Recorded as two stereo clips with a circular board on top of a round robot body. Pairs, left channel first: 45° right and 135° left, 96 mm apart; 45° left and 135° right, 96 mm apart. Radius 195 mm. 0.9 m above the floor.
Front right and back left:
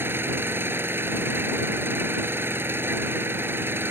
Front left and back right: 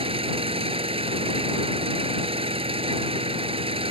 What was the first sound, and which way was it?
An engine running, 155° right.